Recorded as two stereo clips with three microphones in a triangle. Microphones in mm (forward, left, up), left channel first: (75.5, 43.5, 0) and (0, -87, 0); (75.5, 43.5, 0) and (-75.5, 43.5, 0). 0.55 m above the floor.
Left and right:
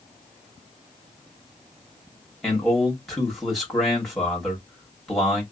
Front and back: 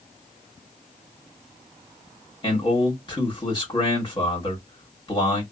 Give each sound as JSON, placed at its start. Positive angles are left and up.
{"t": 2.4, "sound": "a man speaking", "azimuth_deg": -30, "distance_m": 1.5}